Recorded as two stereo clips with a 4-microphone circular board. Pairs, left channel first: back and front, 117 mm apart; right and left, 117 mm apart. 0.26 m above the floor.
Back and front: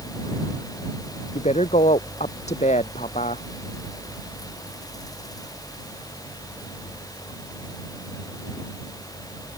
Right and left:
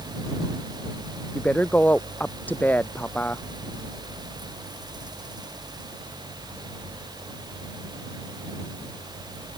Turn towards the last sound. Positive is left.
turn(degrees=-165)